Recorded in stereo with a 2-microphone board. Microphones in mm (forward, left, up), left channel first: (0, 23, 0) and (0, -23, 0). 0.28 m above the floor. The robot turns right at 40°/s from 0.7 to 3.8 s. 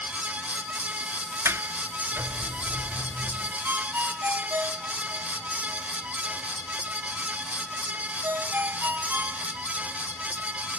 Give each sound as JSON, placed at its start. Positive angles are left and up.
{"t": 1.4, "sound": "a sliding door", "side_deg": -75}
{"t": 3.6, "sound": "a ringtone", "side_deg": -55}